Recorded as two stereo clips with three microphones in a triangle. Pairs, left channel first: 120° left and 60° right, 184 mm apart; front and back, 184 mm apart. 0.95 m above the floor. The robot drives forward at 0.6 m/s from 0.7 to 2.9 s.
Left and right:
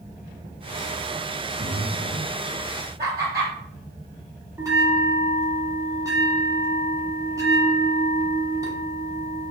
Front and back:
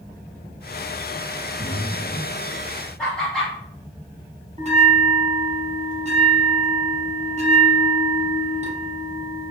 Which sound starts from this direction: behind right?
A bell, at 4.6 s.